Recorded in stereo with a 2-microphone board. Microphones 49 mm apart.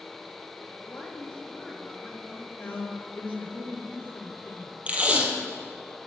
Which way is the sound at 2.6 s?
35° left (ahead or behind).